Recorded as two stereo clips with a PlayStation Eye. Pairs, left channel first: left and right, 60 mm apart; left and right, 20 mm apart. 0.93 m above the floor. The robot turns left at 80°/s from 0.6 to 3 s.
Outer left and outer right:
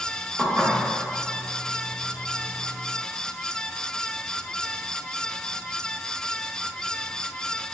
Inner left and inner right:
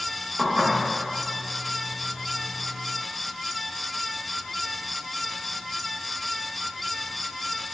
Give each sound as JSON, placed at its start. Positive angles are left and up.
{"t": 0.4, "sound": "dishes clattering", "side_deg": -15, "distance_m": 1.4}